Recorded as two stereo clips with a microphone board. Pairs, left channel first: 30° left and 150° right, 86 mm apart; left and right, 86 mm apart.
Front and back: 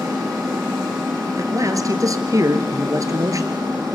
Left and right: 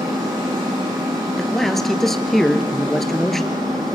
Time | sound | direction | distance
0.0 | an engine running | 80° right | 4.5 m
1.4 | a man speaking | 175° left | 1.9 m